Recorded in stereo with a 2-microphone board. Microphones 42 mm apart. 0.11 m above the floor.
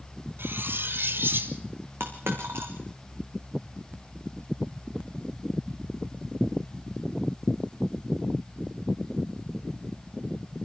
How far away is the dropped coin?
About 3.5 m.